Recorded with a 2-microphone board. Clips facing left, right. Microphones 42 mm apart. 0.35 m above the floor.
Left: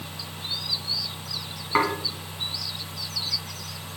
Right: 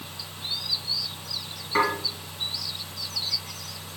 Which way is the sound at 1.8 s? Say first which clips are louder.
Even; 30° left (ahead or behind).